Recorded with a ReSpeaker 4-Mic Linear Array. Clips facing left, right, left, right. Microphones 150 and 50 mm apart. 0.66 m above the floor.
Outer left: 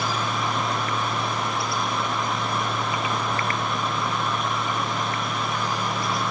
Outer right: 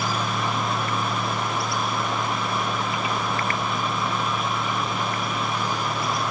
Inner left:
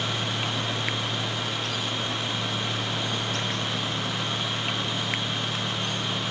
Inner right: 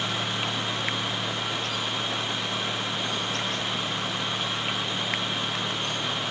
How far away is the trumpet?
No trumpet in this recording.